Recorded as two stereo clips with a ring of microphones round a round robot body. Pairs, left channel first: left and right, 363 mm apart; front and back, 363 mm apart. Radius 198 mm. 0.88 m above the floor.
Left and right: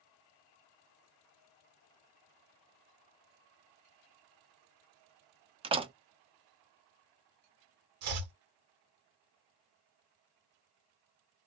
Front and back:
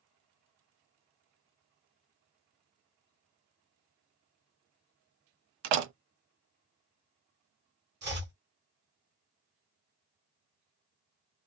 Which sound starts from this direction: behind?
A door slam, at 5.6 s.